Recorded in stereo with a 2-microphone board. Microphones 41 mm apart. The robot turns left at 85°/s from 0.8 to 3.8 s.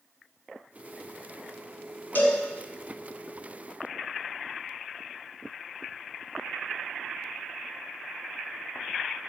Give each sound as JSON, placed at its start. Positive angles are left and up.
{"t": 2.1, "sound": "a cowbell", "side_deg": 55, "distance_m": 1.3}